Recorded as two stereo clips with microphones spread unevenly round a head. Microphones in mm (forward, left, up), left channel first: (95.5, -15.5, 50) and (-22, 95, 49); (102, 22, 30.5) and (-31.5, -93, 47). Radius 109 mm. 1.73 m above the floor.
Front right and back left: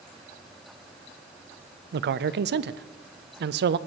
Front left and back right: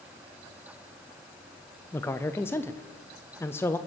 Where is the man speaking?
120° left, 0.6 m.